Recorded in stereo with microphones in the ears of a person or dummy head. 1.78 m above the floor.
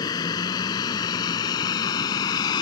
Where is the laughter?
No laughter in this recording.